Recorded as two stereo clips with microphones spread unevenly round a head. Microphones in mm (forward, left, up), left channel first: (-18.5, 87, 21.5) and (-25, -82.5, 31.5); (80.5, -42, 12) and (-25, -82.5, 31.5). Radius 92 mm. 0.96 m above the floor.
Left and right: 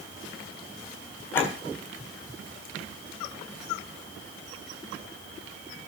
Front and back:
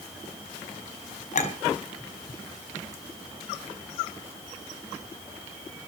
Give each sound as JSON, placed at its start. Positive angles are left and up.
{"t": 1.3, "sound": "a clink", "azimuth_deg": 10, "distance_m": 4.0}